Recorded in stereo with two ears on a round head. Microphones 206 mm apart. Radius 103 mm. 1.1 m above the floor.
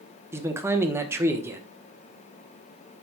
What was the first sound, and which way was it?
A man speaking, 10° right (ahead or behind).